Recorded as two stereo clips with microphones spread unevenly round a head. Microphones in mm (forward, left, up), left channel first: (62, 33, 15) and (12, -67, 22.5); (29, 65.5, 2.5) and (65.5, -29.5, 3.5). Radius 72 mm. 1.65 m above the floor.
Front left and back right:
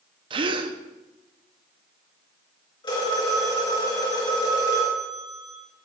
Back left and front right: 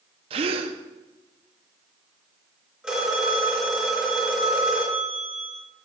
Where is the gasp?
85° right, 0.7 m.